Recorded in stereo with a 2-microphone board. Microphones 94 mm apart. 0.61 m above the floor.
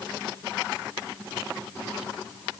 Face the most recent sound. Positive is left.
No sound to turn to.